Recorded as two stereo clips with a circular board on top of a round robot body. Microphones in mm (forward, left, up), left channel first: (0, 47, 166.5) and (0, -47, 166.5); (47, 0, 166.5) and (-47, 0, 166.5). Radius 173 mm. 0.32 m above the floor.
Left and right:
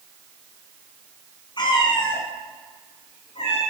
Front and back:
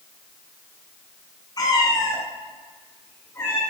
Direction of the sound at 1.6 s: 50° left.